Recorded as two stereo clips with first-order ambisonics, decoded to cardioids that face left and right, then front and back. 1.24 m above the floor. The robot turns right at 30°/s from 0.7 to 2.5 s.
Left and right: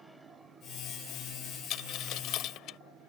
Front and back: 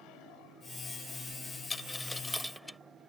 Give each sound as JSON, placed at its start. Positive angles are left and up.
{"t": 1.7, "sound": "a dropped coin", "azimuth_deg": 70}